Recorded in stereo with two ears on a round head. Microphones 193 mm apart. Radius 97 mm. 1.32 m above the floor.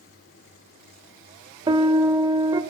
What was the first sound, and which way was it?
A piano, 20° right (ahead or behind).